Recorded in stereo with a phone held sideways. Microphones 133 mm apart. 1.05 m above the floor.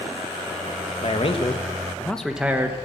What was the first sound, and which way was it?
A man speaking, 55° left (ahead or behind).